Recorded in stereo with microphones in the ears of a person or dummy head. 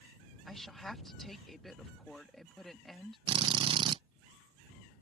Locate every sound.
0.5 s a woman speaking: 5° left (ahead or behind)
3.3 s a drill: 30° right (ahead or behind)